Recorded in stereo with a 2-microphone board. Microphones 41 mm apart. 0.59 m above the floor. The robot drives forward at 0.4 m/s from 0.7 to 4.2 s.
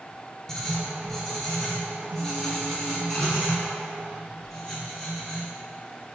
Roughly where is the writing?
Centre.